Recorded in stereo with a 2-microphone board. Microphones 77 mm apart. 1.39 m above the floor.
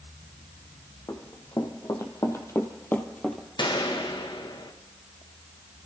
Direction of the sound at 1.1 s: 50° left (ahead or behind).